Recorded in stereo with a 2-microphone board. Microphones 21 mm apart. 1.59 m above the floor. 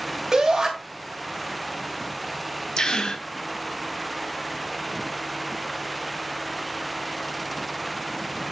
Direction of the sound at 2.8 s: 45° left (ahead or behind).